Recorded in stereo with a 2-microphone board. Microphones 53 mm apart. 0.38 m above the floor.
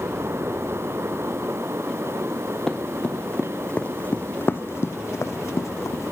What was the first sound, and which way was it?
Running footsteps, 5° left (ahead or behind).